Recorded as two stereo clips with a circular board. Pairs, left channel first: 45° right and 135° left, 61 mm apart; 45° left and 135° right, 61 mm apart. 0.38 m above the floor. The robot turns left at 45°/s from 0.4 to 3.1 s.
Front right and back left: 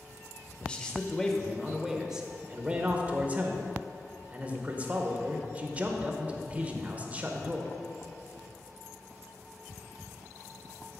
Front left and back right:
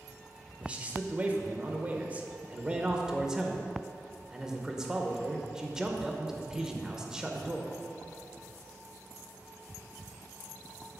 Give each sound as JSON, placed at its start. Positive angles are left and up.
{"t": 0.6, "sound": "a man speaking", "azimuth_deg": -90, "distance_m": 0.8}